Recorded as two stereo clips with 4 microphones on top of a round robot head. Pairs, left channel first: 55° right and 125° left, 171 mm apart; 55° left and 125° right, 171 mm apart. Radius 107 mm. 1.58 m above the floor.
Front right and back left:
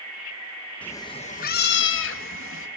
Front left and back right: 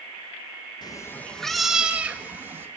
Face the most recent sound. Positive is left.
turn(degrees=-50)